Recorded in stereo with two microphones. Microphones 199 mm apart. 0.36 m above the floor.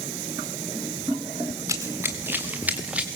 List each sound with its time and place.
1.7 s running footsteps: 15° right (ahead or behind), 2 m; by 3.1 s 5° right (ahead or behind), 3 m